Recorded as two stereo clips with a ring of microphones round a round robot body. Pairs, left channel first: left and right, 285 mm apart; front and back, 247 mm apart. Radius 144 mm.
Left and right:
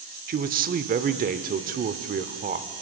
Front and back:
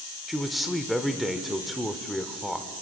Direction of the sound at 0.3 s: 90° right.